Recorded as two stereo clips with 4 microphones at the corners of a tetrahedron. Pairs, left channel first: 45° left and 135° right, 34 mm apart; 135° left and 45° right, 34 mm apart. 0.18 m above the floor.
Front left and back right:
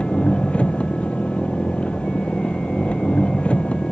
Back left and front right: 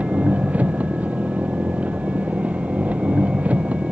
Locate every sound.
0.0 s an engine running: 5° right